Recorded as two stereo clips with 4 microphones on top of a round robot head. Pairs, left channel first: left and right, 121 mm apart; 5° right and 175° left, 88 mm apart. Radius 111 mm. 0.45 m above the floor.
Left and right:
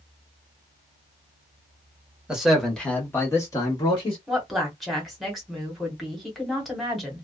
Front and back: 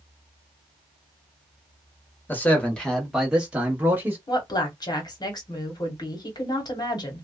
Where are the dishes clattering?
No dishes clattering in this recording.